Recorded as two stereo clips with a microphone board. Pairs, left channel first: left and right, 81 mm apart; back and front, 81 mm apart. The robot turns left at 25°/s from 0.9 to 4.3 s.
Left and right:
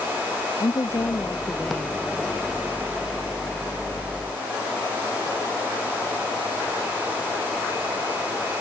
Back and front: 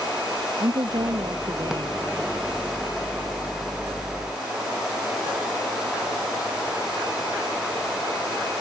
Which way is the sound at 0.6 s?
40° left.